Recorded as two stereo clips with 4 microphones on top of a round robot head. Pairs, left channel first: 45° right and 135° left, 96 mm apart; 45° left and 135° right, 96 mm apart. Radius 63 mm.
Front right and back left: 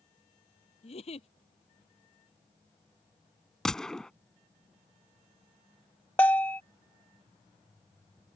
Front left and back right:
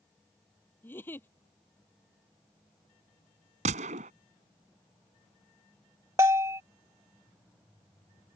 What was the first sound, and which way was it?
A giggle, 25° right.